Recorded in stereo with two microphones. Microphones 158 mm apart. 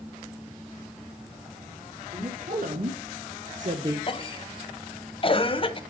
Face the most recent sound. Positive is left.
turn(degrees=35)  # may be behind; listen again after turning